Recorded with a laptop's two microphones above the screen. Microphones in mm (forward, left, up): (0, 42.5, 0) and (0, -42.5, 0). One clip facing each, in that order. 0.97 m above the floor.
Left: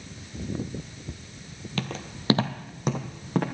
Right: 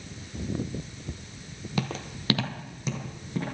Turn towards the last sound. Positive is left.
turn(degrees=65)  # may be behind; listen again after turning